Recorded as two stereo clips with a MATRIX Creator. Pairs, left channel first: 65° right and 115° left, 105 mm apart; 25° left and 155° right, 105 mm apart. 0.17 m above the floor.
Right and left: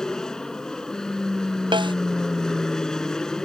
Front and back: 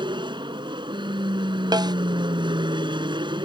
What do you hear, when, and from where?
0.0 s an aircraft: 150° right
1.7 s a snare drum: 155° left